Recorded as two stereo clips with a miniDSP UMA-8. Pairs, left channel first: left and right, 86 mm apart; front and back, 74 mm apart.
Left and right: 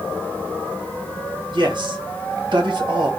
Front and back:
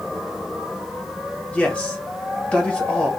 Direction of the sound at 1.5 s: 75° right.